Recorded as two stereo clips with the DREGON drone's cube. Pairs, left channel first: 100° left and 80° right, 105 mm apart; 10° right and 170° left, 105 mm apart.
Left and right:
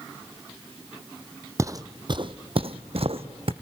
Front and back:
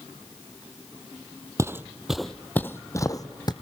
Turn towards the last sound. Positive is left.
turn(degrees=-55)